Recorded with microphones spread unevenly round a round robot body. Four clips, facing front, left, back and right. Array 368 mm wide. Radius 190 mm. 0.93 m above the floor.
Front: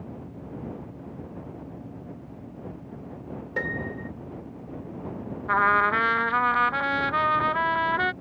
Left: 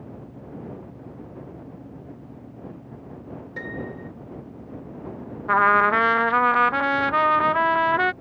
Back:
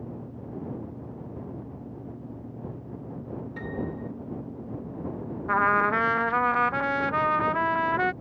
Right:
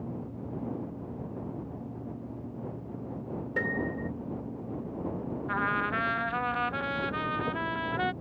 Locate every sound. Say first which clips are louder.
3.6 s a piano: right 2 dB, front 3 dB; 20° right
5.5 s a trumpet: left 13 dB, front 1 dB; 90° left